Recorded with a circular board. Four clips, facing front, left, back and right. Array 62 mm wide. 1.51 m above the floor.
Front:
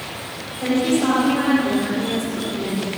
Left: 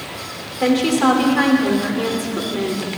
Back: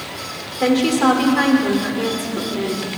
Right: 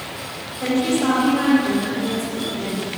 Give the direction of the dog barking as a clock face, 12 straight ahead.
I don't hear a dog barking.